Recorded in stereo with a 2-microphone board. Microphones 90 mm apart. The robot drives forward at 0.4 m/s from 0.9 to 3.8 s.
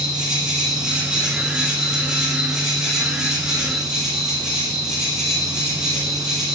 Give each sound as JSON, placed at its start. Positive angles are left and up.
{"t": 0.0, "sound": "an insect", "side_deg": -10, "distance_m": 7.5}